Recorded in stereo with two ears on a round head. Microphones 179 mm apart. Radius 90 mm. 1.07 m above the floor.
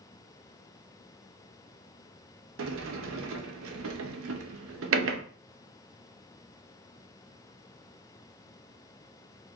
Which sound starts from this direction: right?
A sliding door, at 2.6 s.